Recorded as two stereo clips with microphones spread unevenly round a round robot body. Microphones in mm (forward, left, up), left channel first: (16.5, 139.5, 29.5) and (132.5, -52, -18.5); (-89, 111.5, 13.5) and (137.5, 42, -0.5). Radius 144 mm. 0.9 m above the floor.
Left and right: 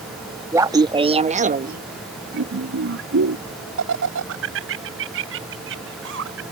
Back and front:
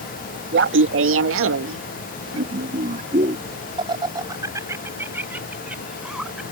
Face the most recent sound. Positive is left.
turn(degrees=-105)